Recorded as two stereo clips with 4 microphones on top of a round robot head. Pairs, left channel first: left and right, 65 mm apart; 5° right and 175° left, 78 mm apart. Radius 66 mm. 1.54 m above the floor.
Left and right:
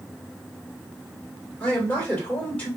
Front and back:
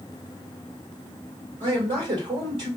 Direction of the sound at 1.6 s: 165° left.